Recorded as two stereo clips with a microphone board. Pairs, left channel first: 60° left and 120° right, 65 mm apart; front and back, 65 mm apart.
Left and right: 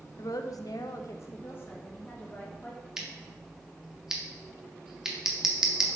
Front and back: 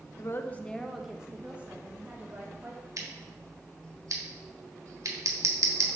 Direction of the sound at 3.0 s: 160° left.